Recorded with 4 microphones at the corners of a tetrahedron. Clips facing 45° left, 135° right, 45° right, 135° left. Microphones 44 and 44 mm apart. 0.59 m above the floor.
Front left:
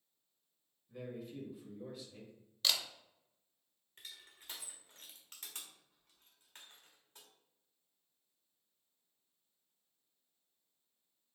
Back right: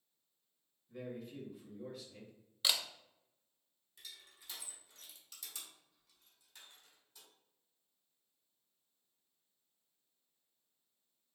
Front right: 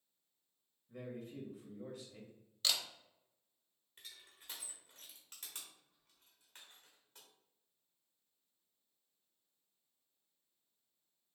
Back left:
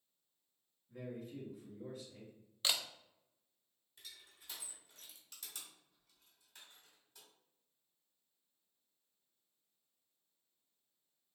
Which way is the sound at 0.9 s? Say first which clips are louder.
Even, even; 45° right.